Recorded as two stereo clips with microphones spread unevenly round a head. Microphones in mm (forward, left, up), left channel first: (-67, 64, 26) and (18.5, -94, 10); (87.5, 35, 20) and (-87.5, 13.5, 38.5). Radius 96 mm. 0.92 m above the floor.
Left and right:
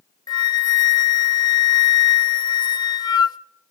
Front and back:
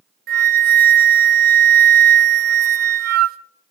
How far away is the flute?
About 0.8 m.